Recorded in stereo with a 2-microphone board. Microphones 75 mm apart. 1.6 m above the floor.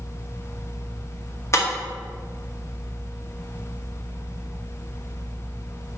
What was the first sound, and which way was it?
Breaking glass, 40° left (ahead or behind).